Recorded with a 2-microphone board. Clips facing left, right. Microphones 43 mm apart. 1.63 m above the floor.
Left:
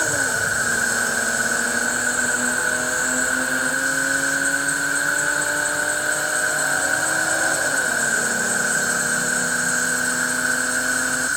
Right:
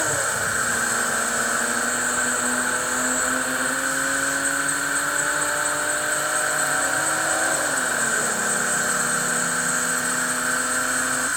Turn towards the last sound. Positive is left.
turn(degrees=-30)  # may be behind; listen again after turning